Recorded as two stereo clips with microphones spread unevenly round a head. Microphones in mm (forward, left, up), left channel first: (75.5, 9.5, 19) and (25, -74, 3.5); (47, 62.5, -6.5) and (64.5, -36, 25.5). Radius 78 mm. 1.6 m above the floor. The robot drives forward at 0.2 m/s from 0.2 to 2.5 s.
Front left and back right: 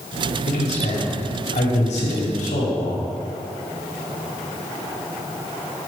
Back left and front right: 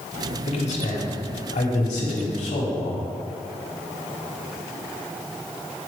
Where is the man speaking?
85° left, 1.4 m; by 3.1 s 105° left, 1.4 m.